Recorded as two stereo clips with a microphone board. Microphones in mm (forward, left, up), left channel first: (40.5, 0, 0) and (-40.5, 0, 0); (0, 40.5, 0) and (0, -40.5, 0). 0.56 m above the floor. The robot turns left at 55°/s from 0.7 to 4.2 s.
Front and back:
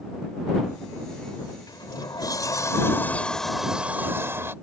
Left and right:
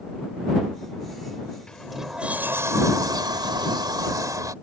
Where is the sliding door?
10° left; by 4.5 s 125° right.